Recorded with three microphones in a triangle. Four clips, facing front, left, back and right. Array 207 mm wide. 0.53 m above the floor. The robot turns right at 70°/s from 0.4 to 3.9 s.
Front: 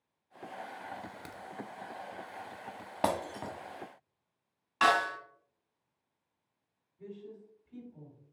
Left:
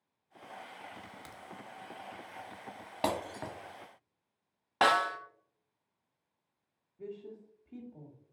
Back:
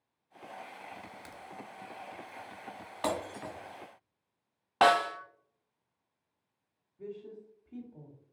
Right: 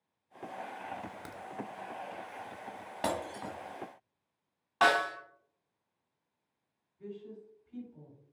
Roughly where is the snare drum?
Behind left.